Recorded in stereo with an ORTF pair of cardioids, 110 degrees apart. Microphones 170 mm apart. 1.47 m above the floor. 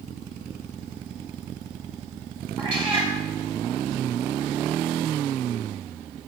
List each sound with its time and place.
2.6 s a cat meowing: 35° right, 4 m